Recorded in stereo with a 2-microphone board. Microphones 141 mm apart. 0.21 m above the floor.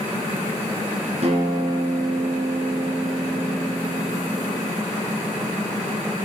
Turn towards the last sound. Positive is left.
turn(degrees=-50)  # may be behind; listen again after turning